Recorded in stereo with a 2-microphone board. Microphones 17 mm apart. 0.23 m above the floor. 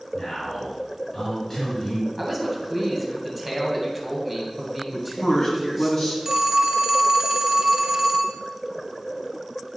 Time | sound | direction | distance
0.1 | a man speaking | 40° left (ahead or behind) | 2.5 m
2.2 | a man speaking | 5° right (ahead or behind) | 1.6 m
4.9 | a man speaking | 35° left (ahead or behind) | 2.0 m
6.2 | a phone ringing | 30° right (ahead or behind) | 0.8 m